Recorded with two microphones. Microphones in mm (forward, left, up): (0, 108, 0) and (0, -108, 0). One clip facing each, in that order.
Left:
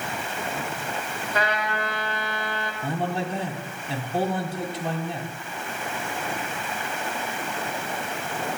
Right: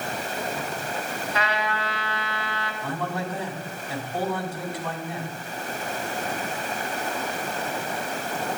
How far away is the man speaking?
About 2.5 m.